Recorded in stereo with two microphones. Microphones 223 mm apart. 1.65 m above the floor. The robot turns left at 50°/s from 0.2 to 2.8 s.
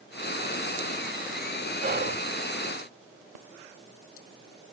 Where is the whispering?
40° right (ahead or behind), 0.6 m; by 2.2 s 60° right (ahead or behind), 0.6 m.